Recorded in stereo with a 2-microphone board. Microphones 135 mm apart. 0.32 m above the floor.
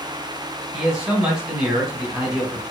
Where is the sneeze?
I don't hear a sneeze.